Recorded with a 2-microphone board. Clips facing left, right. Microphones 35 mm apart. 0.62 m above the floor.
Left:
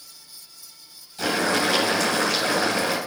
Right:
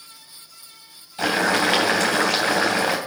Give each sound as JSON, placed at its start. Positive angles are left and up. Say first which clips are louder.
{"t": 1.2, "sound": "boiling", "louder": "right 3 dB", "side_deg": -20, "distance_m": 3.0}